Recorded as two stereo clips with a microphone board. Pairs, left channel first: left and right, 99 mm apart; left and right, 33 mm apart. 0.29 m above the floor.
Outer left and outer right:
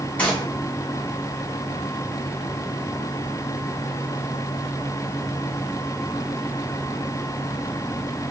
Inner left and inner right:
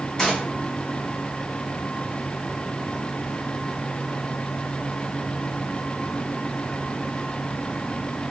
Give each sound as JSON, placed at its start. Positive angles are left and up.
{"t": 0.2, "sound": "a gunshot", "side_deg": 10, "distance_m": 1.8}